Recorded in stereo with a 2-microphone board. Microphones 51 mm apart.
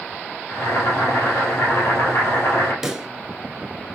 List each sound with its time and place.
0.5 s boiling: 55° left (ahead or behind), 2.5 m
2.8 s a pop: 10° right (ahead or behind), 0.8 m